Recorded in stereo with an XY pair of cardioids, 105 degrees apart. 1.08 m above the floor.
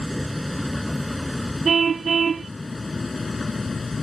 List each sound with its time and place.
0.0 s a vehicle: 5° left; by 4.0 s 25° left
1.6 s a car horn: 40° right